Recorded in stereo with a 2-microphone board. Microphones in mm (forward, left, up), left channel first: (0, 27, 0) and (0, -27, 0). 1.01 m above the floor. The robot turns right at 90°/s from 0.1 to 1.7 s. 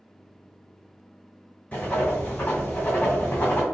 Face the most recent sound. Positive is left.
turn(degrees=30)  # may be behind; listen again after turning